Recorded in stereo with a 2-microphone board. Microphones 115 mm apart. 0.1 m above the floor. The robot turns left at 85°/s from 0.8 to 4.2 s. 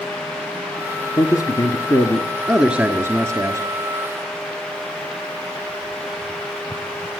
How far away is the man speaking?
About 1.4 m.